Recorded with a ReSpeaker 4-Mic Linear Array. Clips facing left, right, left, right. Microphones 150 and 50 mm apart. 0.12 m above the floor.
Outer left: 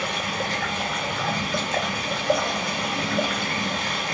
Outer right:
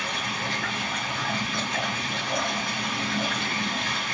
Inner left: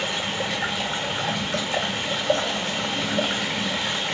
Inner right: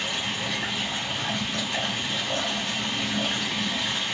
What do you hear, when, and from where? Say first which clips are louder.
0.0 s running water: outer left 4 dB, inner left 3 dB; 85° left, 1.1 m